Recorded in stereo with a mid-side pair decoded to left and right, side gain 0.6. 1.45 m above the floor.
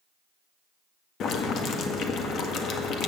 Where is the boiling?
55° left, 1.6 m.